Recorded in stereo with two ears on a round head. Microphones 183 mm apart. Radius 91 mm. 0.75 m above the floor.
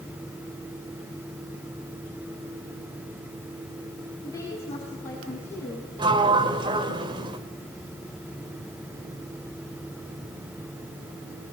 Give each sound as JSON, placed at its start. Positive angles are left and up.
{"t": 4.2, "sound": "a woman speaking", "side_deg": 15, "distance_m": 8.0}
{"t": 6.0, "sound": "a sliding door", "side_deg": -25, "distance_m": 2.5}